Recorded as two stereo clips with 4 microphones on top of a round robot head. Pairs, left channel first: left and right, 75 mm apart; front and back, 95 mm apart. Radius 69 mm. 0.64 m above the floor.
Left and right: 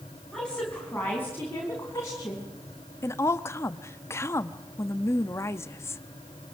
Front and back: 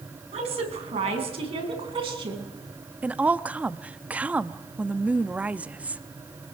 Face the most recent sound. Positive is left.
turn(degrees=115)